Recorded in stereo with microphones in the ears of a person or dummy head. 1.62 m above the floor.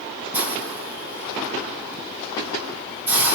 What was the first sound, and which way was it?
A hiss, 10° right (ahead or behind).